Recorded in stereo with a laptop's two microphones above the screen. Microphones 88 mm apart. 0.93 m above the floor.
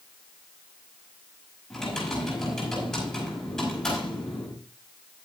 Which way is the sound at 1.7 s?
10° left (ahead or behind).